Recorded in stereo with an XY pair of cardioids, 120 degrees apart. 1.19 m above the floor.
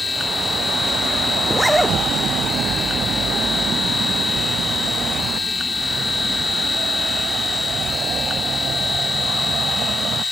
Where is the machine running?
20° left.